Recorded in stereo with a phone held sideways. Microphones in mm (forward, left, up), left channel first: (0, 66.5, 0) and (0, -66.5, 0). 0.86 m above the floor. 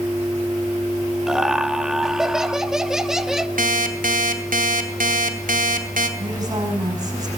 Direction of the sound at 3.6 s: 80° right.